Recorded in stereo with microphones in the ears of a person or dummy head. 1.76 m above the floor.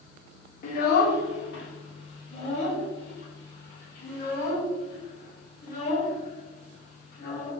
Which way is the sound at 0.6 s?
50° left (ahead or behind).